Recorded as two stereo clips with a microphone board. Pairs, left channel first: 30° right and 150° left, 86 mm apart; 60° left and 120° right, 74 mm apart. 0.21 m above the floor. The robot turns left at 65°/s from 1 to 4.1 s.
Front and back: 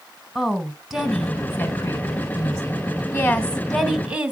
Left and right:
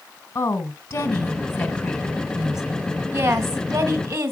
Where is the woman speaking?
55° left, 1.2 m; by 4.3 s 145° right, 1.2 m.